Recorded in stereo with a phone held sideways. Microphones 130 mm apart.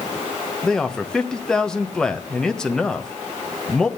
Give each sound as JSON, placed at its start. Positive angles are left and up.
{"t": 0.6, "sound": "a man speaking", "side_deg": 5, "distance_m": 1.0}